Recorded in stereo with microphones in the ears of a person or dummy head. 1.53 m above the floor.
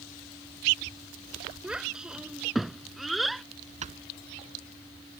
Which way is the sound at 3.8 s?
35° right (ahead or behind).